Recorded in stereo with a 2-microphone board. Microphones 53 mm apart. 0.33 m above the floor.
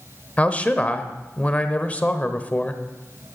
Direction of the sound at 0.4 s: 25° left (ahead or behind).